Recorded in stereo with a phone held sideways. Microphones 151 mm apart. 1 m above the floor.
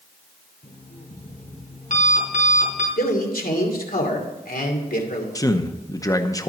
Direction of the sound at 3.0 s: 70° left (ahead or behind).